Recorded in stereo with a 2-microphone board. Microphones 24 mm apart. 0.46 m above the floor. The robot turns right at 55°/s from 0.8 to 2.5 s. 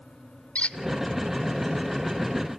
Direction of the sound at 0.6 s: 60° left (ahead or behind).